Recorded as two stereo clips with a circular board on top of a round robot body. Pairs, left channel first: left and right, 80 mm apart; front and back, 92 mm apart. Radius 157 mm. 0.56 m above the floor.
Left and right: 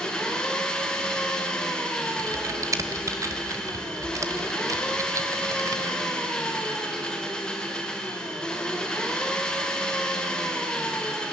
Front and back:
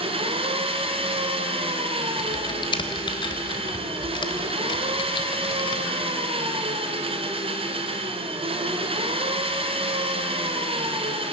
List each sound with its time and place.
0.0 s an engine running: 175° left, 1.8 m
2.2 s typing on a keyboard: 35° right, 1.4 m